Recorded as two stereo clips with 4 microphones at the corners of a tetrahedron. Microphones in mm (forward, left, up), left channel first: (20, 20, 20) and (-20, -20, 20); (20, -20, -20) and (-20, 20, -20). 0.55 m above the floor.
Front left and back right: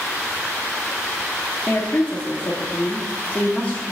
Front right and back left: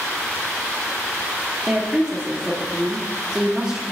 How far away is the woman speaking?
About 1.0 m.